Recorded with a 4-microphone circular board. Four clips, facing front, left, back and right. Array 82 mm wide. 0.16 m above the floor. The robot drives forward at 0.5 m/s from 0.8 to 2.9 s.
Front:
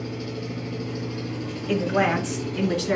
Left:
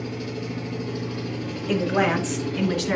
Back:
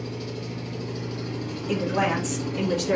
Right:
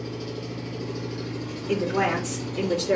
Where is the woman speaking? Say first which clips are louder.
Left 2 dB, front 2 dB; 55° left, 2 m; by 3.0 s 75° left, 2.0 m.